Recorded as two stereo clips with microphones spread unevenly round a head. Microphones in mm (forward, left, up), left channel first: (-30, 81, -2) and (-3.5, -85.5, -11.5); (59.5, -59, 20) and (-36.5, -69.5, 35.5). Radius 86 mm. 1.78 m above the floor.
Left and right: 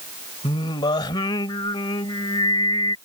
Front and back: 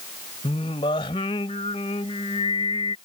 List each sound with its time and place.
0.4 s singing: 55° left